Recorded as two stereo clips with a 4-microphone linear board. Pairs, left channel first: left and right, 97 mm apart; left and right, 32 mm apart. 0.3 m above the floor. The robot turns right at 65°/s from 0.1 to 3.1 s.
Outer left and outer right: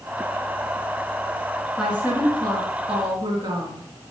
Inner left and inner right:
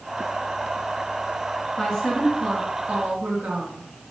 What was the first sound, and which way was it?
A woman speaking, 175° right.